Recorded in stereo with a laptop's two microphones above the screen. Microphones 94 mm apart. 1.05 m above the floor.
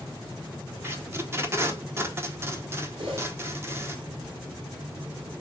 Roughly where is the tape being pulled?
Right.